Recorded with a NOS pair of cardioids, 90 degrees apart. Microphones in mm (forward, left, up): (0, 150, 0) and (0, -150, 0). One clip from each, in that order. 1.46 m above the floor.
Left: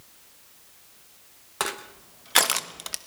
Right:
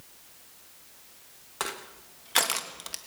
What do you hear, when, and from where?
1.6 s crushing: 30° left, 1.3 m